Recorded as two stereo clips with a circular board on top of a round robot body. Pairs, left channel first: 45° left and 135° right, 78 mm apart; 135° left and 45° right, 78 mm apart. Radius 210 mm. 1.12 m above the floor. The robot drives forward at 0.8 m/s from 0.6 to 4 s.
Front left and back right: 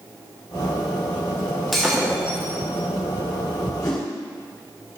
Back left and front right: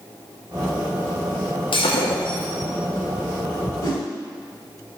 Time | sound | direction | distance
1.7 | breaking glass | 135° left | 1.0 m
3.8 | a whoosh | 90° left | 2.5 m